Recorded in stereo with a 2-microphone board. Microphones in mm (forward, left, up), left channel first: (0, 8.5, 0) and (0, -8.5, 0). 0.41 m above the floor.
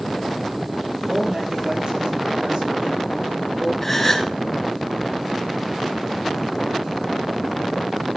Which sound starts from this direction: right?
A man speaking, at 1.1 s.